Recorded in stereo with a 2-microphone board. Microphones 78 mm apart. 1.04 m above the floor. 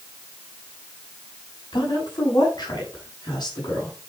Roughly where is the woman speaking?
Left.